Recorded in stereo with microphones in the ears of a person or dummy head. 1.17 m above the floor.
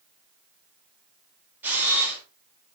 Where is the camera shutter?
10° right (ahead or behind), 4.5 m.